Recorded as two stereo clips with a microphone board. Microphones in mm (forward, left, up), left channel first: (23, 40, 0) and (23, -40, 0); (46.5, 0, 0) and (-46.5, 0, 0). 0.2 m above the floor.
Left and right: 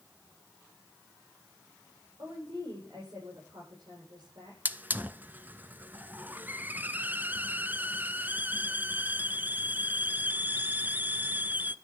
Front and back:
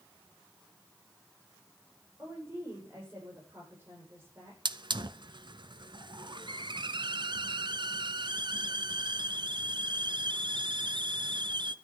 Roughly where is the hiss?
Behind right.